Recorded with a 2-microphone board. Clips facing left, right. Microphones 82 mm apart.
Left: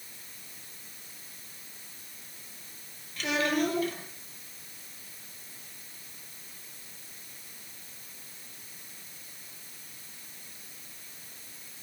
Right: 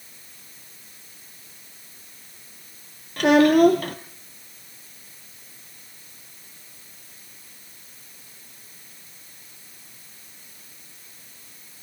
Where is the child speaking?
60° right (ahead or behind), 1.5 m.